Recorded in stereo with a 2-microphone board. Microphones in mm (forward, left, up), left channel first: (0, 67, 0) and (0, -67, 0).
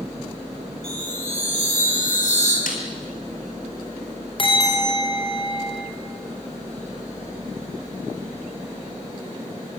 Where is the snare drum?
85° left, 4 m.